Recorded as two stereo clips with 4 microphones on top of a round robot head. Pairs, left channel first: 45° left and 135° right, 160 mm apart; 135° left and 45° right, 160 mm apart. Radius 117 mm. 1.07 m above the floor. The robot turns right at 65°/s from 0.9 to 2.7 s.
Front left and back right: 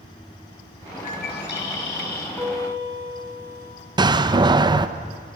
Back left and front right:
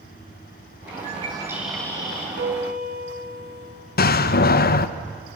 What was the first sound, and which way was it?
A bird, straight ahead.